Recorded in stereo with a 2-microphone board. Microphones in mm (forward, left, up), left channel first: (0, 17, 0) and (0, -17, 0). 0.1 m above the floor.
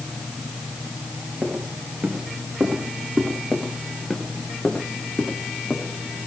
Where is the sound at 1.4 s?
55° right (ahead or behind), 5.5 m; by 3.4 s 35° right (ahead or behind), 6 m.